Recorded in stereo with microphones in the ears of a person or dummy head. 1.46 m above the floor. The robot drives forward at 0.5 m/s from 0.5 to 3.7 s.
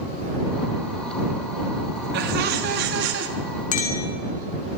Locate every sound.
2.1 s laughter: 65° right (ahead or behind), 3.5 m; by 3.3 s 70° right (ahead or behind), 3.5 m
3.7 s a clink: 50° left (ahead or behind), 2 m